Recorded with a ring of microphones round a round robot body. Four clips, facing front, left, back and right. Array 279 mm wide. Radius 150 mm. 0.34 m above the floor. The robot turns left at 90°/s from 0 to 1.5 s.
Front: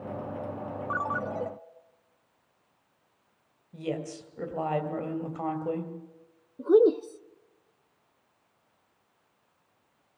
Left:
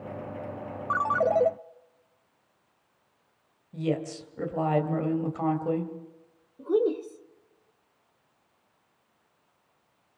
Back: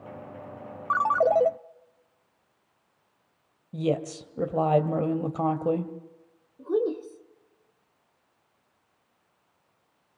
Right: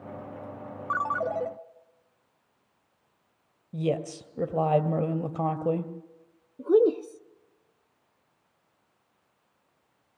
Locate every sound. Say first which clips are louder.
0.9 s a ringtone: left 4 dB, back 11 dB; 170° right, 0.7 m; by 1.5 s 135° left, 0.7 m
3.7 s a woman speaking: right 1 dB, back 7 dB; 140° right, 2 m
6.6 s a woman speaking: right 4 dB, front 6 dB; 35° right, 1.0 m